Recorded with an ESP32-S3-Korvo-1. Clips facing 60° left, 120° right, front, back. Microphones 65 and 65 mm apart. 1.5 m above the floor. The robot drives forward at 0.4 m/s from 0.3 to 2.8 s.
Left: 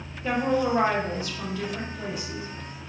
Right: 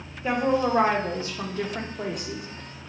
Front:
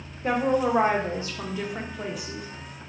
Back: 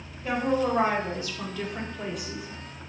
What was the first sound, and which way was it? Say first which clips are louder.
A woman speaking: right 1 dB, front 2 dB; 40° right.